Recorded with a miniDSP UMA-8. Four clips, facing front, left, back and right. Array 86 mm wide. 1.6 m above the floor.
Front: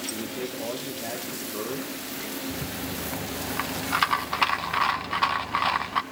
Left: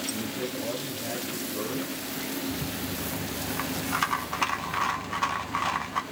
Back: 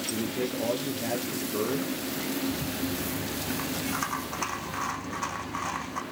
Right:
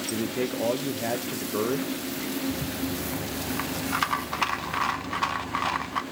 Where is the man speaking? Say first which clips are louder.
Right 9 dB, back 6 dB; 95° right, 1.3 m.